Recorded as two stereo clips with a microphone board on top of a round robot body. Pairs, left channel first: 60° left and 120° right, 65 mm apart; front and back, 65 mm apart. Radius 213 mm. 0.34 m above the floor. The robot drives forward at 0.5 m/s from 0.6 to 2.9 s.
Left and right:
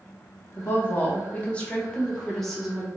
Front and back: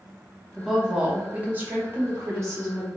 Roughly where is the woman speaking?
Left.